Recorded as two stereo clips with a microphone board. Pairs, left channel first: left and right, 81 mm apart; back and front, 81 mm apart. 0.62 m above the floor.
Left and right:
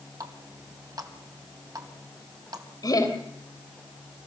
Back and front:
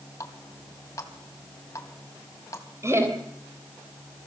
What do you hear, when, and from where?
0.2 s a running tap: 130° right, 3 m
2.8 s laughter: 55° left, 3.5 m